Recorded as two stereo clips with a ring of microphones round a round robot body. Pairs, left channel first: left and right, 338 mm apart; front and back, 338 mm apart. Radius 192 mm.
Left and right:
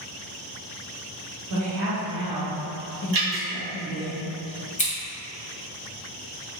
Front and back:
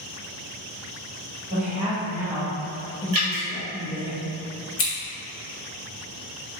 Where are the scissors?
30° left, 1.3 m.